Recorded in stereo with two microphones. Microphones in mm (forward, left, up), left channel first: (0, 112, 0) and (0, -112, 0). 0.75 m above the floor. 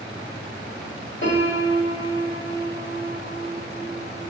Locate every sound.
1.2 s a piano: 55° left (ahead or behind), 1.7 m